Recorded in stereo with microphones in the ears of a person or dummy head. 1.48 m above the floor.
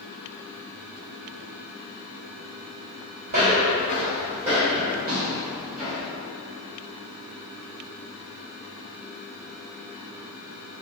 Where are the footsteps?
40° right (ahead or behind), 2.0 m; by 6.1 s 10° right (ahead or behind), 1.6 m.